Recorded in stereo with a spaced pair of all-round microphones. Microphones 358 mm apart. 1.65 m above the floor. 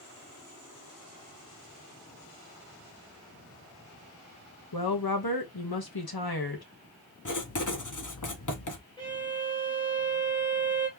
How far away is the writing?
About 1.0 m.